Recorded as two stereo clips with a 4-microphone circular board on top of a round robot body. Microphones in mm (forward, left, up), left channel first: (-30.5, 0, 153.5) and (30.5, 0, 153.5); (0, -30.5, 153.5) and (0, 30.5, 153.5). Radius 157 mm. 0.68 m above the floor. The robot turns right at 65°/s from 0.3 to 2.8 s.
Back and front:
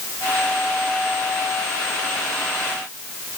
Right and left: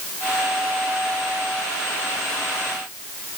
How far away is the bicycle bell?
I don't hear a bicycle bell.